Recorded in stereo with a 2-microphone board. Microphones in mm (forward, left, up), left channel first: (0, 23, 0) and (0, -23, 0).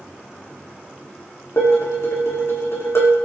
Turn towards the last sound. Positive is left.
turn(degrees=75)  # may be behind; listen again after turning